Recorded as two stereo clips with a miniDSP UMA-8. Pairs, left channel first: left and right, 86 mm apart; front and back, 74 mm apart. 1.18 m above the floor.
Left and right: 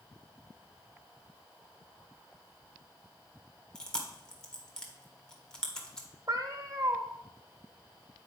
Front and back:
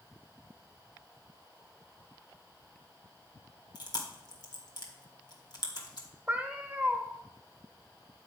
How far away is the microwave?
I don't hear a microwave.